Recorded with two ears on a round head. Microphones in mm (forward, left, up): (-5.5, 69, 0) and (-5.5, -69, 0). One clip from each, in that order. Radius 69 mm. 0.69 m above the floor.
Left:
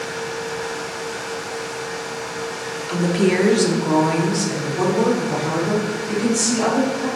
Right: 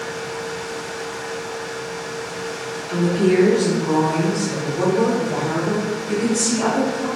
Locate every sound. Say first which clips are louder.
2.9 s a woman speaking: right 1 dB; 50° left (ahead or behind), 1.5 m; by 7.1 s 20° left (ahead or behind), 3.5 m